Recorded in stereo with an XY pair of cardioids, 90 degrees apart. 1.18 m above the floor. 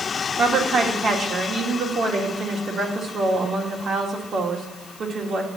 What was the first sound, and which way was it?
A woman speaking, 55° right.